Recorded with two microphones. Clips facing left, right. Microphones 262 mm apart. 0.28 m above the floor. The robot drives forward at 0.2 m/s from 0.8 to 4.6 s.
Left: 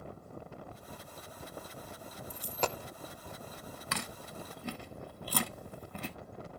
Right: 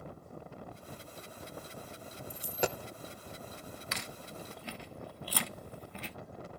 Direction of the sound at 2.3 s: 10° right (ahead or behind).